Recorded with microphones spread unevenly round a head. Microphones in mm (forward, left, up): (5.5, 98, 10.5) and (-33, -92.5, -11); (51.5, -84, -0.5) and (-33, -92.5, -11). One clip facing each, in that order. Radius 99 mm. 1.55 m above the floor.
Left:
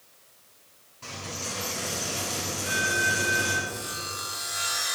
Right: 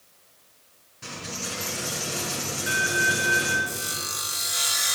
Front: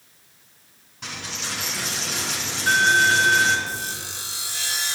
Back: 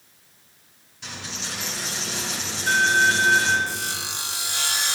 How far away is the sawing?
About 1.0 m.